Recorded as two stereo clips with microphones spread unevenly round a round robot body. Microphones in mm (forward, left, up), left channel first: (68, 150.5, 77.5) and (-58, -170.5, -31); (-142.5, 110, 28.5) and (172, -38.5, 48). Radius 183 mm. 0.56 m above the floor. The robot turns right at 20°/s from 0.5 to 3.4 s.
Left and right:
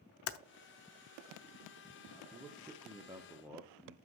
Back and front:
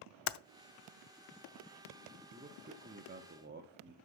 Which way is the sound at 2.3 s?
85° right.